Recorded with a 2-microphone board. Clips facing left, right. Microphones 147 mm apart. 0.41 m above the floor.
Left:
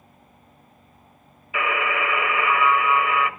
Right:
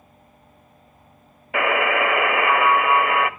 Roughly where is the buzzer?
Right.